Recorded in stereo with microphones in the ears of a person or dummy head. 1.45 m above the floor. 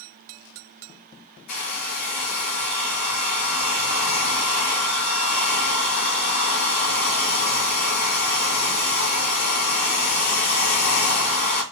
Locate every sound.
1.5 s a hair dryer: 55° left (ahead or behind), 1.6 m